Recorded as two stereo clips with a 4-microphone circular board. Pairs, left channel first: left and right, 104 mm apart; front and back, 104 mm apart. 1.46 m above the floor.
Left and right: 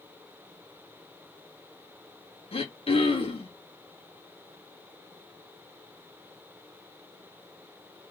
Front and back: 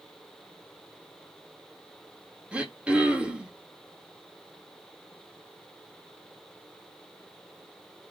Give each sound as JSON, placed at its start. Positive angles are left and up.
{"t": 2.5, "sound": "throat clearing", "azimuth_deg": 100, "distance_m": 2.0}